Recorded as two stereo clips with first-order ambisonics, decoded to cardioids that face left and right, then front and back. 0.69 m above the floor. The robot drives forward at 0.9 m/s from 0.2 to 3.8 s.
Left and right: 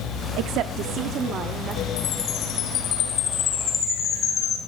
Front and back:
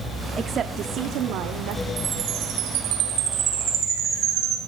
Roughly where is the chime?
Behind left.